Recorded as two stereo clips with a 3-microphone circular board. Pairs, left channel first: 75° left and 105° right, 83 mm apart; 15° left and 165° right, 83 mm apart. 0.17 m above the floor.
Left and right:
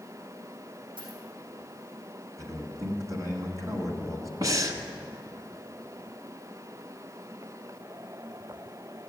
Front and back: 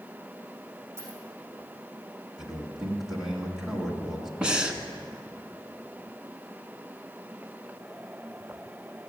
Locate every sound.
1.0 s a dropped coin: 105° right, 4 m
2.4 s a man speaking: 85° right, 1.9 m
4.4 s breathing: 90° right, 0.9 m